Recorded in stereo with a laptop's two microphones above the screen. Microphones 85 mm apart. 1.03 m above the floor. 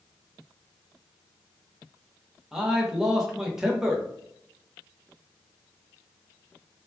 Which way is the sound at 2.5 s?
5° right (ahead or behind).